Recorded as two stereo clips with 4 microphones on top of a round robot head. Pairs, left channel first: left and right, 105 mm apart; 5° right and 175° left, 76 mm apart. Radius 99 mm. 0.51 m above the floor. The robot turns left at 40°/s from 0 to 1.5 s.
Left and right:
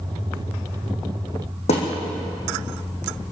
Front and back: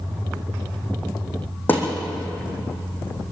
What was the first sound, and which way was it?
A thud, 60° left.